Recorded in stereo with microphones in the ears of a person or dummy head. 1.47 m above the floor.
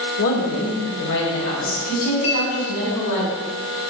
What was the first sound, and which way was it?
A woman speaking, 75° left (ahead or behind).